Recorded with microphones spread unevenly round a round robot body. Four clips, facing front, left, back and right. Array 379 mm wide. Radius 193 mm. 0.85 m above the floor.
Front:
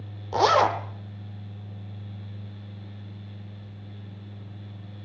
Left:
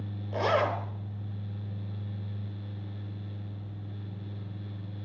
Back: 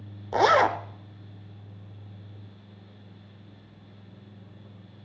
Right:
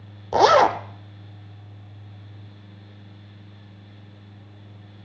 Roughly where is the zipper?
Right.